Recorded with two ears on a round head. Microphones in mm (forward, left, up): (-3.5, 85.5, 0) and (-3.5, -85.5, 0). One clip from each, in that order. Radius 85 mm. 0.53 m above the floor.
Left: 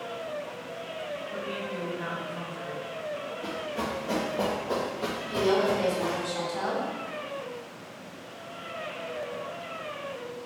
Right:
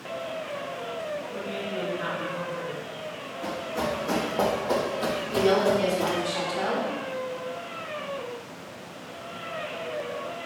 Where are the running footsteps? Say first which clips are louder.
Right 6 dB; 20° right (ahead or behind), 1.9 m; by 6.3 s 30° right (ahead or behind), 0.6 m.